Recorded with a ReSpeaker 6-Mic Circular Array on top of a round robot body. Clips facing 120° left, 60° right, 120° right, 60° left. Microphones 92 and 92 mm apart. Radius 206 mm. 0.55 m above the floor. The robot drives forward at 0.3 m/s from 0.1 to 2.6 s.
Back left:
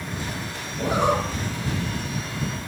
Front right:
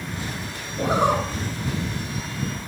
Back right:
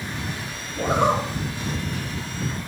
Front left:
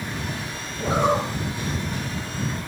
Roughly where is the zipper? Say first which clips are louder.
Front right 1 dB, back right 1 dB; right.